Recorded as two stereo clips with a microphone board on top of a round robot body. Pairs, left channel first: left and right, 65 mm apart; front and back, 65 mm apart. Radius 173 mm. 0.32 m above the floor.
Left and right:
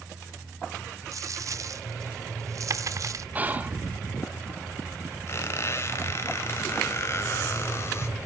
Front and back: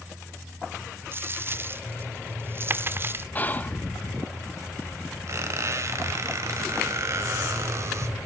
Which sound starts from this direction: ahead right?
Whispering, at 3.4 s.